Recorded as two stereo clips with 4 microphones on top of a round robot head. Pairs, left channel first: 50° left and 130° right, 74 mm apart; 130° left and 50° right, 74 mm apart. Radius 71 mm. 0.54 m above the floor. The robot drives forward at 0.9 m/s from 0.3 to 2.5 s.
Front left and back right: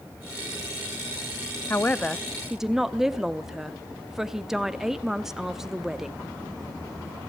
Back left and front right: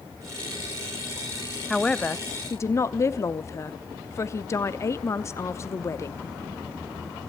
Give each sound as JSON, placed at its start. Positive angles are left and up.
{"t": 1.7, "sound": "a man speaking", "azimuth_deg": 50, "distance_m": 0.8}